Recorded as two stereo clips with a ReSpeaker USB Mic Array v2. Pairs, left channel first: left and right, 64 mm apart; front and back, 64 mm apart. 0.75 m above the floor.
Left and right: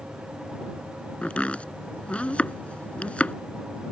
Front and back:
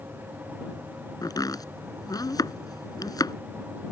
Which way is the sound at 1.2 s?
15° left.